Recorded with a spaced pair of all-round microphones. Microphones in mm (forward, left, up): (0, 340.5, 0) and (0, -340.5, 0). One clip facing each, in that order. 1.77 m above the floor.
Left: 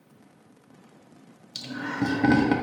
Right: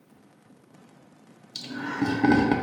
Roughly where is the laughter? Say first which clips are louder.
Right 1 dB; centre.